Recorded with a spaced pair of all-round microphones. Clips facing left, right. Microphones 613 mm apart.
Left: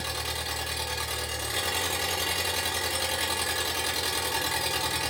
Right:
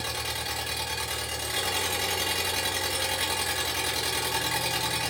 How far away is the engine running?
About 0.9 m.